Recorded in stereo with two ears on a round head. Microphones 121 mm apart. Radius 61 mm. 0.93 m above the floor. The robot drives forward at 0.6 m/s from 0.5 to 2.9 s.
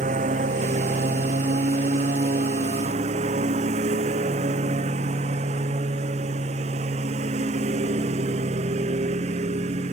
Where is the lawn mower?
60° right (ahead or behind); by 9.9 s 55° right (ahead or behind).